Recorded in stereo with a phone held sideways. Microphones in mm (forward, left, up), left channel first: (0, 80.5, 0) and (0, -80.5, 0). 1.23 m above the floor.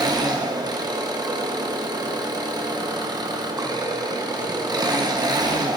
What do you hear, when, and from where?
0.0 s an engine running: 25° right (ahead or behind), 0.7 m